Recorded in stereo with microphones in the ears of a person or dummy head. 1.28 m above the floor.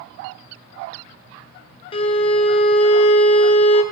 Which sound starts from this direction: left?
A violin, at 1.9 s.